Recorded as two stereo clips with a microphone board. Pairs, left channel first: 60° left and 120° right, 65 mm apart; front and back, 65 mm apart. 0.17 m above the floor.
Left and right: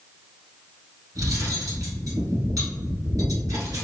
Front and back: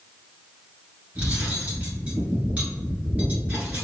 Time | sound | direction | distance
1.1 | cutlery clinking | 115° right | 1.6 m